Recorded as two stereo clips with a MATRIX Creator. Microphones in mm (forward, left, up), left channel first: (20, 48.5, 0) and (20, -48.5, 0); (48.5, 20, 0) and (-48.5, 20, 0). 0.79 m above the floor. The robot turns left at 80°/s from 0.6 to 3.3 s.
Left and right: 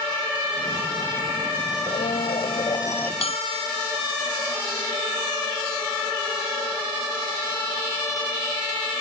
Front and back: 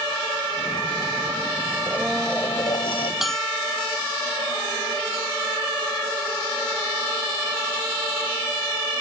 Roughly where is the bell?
Left.